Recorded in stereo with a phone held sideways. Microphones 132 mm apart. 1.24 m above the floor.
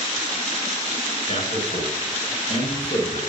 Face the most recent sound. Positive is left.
turn(degrees=55)  # may be behind; listen again after turning